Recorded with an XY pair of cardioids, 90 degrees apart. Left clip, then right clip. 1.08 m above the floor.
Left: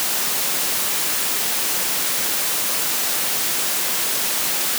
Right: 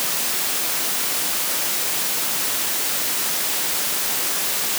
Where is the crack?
No crack in this recording.